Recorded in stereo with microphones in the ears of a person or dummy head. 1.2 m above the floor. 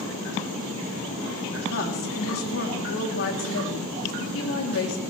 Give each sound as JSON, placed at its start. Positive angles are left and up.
{"t": 1.7, "sound": "a woman speaking", "side_deg": 60, "distance_m": 3.0}